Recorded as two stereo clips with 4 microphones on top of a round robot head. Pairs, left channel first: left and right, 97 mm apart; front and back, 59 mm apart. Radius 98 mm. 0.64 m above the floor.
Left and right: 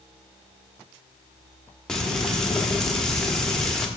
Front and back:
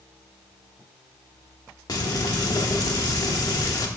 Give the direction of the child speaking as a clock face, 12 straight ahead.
No child speaking in this recording.